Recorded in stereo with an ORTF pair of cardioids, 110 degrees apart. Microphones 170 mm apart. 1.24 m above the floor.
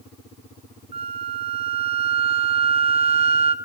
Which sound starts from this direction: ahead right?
A flute, at 0.9 s.